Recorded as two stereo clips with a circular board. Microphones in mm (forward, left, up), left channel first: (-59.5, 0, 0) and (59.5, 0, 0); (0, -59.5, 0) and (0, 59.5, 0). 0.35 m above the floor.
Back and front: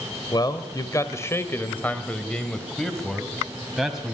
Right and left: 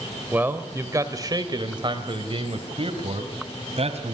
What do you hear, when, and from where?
0.3 s a man speaking: 155° left, 1.4 m; by 4.2 s 85° left, 2.5 m